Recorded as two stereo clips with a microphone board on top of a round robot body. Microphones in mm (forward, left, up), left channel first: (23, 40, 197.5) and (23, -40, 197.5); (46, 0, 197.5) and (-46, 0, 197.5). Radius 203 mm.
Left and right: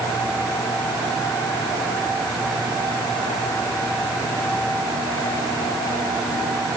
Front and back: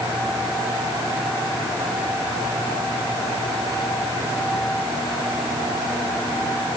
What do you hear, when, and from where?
Only background noise.